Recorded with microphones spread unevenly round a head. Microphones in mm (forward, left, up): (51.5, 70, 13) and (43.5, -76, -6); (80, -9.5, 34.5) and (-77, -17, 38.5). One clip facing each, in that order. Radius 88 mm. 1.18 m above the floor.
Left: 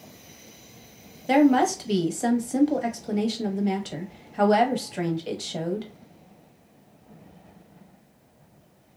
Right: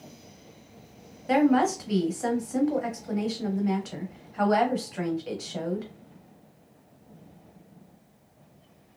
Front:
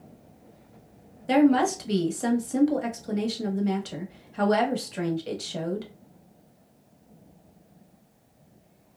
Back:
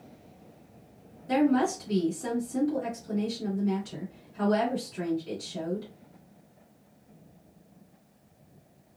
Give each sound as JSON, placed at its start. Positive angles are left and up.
{"t": 1.3, "sound": "a woman speaking", "azimuth_deg": 30, "distance_m": 1.2}